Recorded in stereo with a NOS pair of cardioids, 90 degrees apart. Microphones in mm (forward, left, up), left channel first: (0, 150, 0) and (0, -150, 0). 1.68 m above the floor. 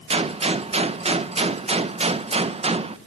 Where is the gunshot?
20° right, 1.6 m.